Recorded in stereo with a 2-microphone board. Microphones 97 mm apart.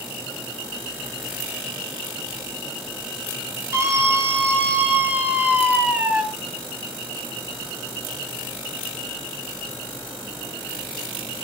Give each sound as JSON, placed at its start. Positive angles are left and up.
{"t": 3.7, "sound": "a scream", "side_deg": -30, "distance_m": 5.0}